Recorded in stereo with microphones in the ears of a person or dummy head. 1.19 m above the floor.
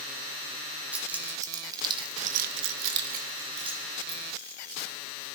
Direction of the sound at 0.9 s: 15° right (ahead or behind).